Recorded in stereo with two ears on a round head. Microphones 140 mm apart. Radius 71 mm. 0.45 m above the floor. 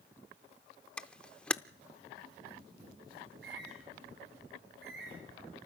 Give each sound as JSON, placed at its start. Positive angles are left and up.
{"t": 1.0, "sound": "a camera shutter", "side_deg": 5, "distance_m": 0.5}
{"t": 3.2, "sound": "a bird", "side_deg": -80, "distance_m": 10.0}